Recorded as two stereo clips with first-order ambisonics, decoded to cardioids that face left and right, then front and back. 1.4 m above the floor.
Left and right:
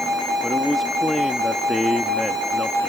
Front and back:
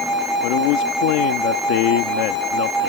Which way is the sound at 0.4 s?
5° left.